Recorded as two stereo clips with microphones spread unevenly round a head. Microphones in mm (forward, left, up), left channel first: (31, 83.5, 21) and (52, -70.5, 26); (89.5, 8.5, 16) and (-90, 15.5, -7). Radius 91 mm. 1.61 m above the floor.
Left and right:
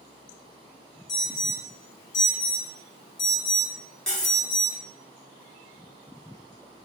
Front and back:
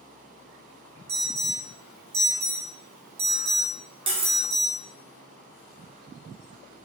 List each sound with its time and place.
1.1 s an alarm: 160° left, 1.0 m
4.1 s cutlery clinking: straight behind, 0.7 m